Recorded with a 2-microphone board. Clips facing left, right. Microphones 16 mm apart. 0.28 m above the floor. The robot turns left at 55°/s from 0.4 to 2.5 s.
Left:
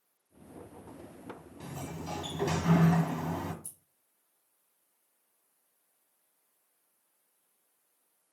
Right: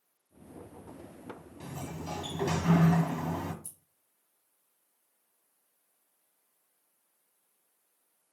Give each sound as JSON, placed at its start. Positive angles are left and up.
{"t": 1.6, "sound": "a sliding door", "azimuth_deg": -35, "distance_m": 1.4}
{"t": 3.6, "sound": "scissors", "side_deg": -35, "distance_m": 3.5}